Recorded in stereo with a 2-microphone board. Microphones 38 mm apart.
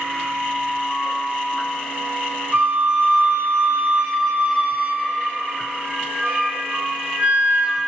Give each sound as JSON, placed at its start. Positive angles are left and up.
{"t": 2.5, "sound": "a flute", "side_deg": -40, "distance_m": 0.7}